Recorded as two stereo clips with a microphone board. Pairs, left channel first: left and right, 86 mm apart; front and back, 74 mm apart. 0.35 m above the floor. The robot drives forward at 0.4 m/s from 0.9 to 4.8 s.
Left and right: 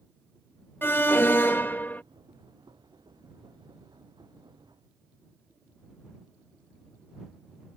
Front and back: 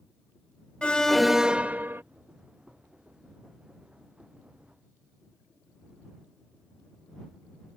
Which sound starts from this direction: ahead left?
An alarm, at 0.8 s.